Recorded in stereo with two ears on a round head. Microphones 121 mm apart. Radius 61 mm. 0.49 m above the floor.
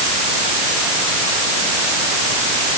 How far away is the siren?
I don't hear a siren.